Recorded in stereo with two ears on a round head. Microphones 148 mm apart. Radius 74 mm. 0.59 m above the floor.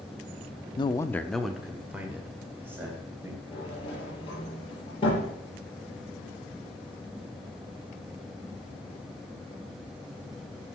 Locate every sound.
0.8 s a man speaking: 30° left (ahead or behind), 0.7 m; by 3.4 s 15° right (ahead or behind), 3.5 m
3.5 s a sliding door: 30° left (ahead or behind), 5.5 m